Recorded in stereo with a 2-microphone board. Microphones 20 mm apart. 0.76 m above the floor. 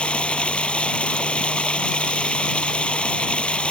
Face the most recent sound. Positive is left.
turn(degrees=80)